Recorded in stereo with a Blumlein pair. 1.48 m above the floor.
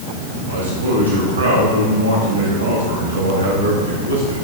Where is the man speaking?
70° right, 6 m.